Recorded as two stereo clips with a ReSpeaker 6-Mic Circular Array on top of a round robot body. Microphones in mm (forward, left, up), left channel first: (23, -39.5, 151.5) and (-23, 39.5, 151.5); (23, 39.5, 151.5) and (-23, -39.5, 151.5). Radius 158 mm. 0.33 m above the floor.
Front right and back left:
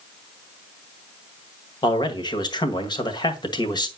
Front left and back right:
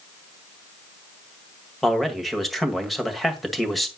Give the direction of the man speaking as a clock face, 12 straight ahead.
1 o'clock.